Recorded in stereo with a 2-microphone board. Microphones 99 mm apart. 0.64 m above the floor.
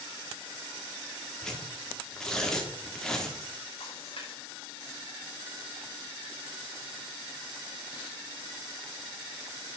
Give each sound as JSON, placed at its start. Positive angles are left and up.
{"t": 1.4, "sound": "tearing paper", "side_deg": 5, "distance_m": 1.6}
{"t": 3.8, "sound": "a splash", "side_deg": 70, "distance_m": 3.0}